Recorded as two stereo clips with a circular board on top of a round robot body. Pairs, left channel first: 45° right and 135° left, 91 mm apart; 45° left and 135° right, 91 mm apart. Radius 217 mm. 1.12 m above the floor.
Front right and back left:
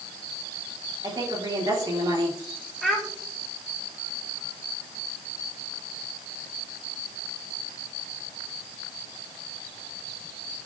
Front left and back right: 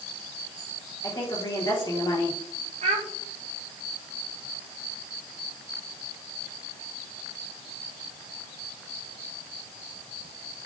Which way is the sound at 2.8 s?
135° right.